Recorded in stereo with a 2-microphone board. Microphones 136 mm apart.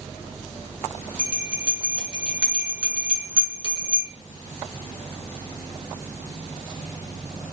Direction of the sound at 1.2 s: 15° right (ahead or behind).